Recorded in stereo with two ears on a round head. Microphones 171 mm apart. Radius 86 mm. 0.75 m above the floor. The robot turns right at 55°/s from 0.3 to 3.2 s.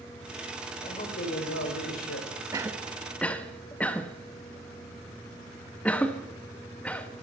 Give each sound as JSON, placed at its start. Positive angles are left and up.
{"t": 0.8, "sound": "a man speaking", "azimuth_deg": 25, "distance_m": 2.5}
{"t": 2.5, "sound": "a cough", "side_deg": -15, "distance_m": 0.8}